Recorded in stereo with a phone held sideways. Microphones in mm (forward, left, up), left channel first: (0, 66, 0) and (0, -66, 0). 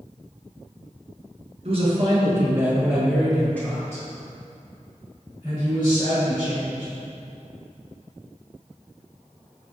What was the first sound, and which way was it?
A man speaking, 50° right (ahead or behind).